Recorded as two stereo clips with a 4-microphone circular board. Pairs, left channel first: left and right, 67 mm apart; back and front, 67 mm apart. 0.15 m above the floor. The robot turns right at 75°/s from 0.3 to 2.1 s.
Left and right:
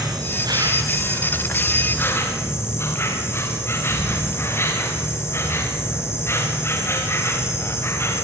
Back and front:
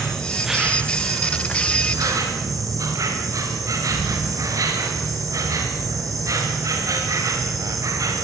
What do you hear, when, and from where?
0.0 s an insect: 100° right, 7 m; by 8.2 s 35° left, 7 m